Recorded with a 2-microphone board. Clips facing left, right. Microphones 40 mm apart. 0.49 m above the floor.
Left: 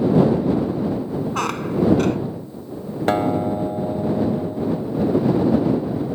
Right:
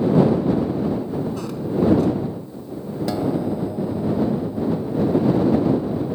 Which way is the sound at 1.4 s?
70° left (ahead or behind).